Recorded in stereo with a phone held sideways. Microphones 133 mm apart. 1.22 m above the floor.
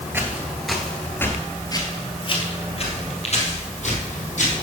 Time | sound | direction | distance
0.1 | footsteps | 15° right (ahead or behind) | 1.3 m